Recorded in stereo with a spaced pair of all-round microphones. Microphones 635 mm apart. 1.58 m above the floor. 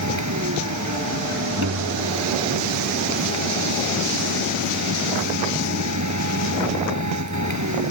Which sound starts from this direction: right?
A machine running, at 0.0 s.